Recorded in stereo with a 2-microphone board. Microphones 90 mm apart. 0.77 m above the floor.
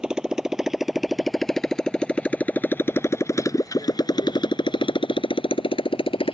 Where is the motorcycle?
10° right (ahead or behind); by 6.3 s 85° left.